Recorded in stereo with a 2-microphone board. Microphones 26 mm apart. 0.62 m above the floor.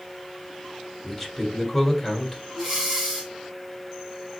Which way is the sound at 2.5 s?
20° right (ahead or behind).